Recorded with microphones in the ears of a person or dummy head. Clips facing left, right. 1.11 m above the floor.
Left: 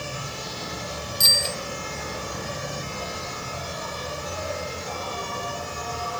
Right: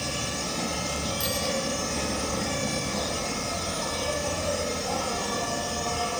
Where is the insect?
75° right (ahead or behind), 5.5 m.